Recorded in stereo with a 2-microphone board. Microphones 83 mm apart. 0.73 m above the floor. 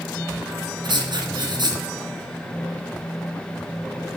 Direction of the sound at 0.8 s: 60° right (ahead or behind).